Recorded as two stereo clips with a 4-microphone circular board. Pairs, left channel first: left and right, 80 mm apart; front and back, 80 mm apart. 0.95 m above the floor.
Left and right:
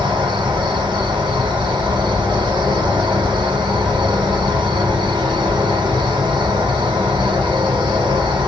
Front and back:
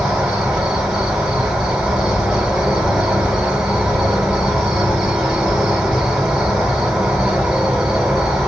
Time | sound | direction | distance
0.0 | an insect | 95° right | 1.2 m